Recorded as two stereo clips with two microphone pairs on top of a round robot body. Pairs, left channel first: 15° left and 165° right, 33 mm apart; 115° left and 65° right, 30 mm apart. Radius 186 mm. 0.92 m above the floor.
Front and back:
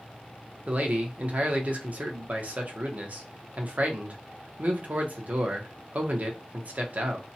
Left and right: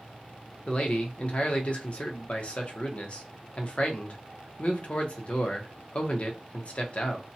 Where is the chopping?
No chopping in this recording.